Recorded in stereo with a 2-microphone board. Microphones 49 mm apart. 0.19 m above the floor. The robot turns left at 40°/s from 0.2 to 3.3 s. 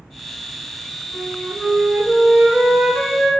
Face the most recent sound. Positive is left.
turn(degrees=-115)